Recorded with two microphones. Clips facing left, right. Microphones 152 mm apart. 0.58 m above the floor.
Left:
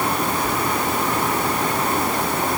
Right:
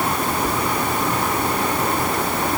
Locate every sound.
Only background noise.